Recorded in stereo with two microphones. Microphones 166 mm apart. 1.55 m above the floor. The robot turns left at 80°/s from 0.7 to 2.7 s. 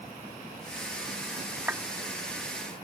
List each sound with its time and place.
1.7 s a clap: 15° right (ahead or behind); by 1.8 s 5° right (ahead or behind)